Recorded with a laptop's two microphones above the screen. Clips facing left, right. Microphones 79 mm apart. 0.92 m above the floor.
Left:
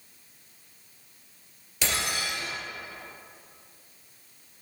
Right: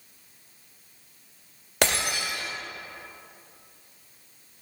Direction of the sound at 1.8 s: 65° right (ahead or behind).